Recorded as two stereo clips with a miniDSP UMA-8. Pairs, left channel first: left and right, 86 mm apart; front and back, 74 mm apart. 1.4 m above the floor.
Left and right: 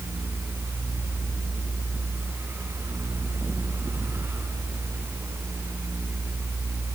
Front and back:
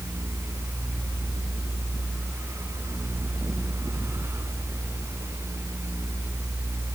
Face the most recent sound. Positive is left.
No sound to turn to.